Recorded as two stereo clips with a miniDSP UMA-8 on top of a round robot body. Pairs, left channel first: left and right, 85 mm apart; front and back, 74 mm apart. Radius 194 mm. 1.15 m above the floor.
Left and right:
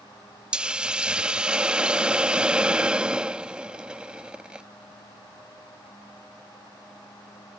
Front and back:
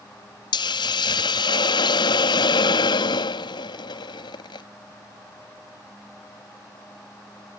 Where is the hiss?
10° right.